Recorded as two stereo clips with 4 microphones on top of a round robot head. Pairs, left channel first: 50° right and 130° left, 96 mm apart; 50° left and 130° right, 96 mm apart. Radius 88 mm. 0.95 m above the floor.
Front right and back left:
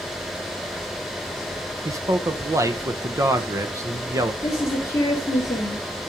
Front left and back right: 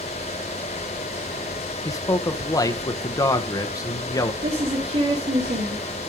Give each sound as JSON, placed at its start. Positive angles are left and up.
{"t": 1.9, "sound": "a man speaking", "azimuth_deg": 85, "distance_m": 0.9}
{"t": 4.4, "sound": "a woman speaking", "azimuth_deg": -120, "distance_m": 2.5}